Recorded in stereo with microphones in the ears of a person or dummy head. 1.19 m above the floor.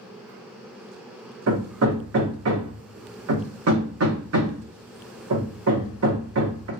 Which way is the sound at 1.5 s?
75° right (ahead or behind).